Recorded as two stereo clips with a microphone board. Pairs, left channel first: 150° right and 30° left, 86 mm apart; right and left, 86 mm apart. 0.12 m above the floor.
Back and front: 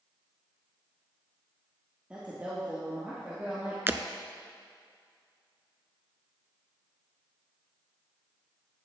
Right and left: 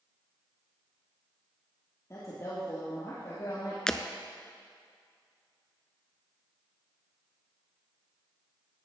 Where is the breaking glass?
15° right, 0.6 m.